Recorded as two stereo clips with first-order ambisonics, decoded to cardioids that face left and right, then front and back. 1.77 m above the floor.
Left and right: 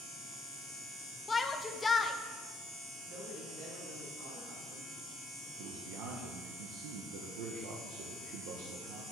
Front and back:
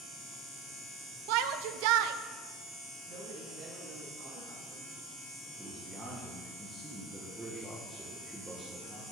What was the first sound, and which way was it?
A shout, 170° left.